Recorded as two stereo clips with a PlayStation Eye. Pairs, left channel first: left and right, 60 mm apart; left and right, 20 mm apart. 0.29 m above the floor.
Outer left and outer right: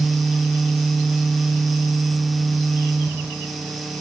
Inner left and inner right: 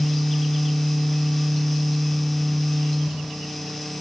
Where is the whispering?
No whispering in this recording.